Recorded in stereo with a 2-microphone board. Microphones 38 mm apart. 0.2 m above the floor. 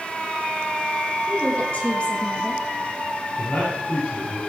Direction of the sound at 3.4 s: 75° left (ahead or behind).